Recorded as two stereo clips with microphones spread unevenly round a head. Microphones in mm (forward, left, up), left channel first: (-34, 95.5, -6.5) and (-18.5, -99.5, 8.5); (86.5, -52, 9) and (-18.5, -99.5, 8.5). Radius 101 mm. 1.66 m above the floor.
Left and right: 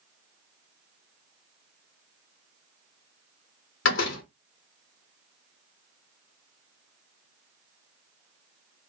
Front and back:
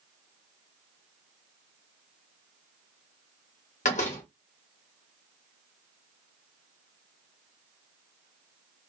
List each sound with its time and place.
3.9 s a door slam: 60° left, 1.4 m